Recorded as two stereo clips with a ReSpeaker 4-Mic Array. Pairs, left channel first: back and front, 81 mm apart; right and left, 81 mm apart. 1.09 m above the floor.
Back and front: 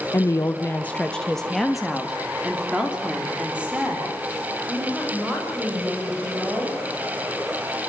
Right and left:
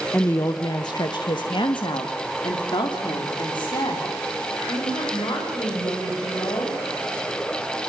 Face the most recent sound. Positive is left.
turn(degrees=-70)